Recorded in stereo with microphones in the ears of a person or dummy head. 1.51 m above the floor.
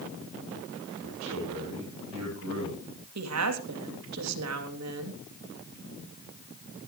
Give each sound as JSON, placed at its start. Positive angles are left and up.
{"t": 1.0, "sound": "a man speaking", "side_deg": -75, "distance_m": 9.0}
{"t": 3.1, "sound": "a woman speaking", "side_deg": -85, "distance_m": 3.0}